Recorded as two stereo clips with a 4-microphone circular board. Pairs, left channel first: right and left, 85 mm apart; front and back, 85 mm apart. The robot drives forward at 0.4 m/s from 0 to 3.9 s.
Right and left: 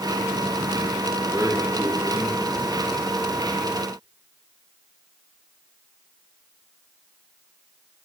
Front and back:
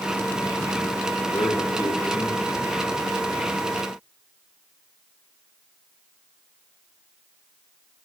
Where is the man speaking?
30° left, 4 m; by 3.0 s 35° left, 3.5 m.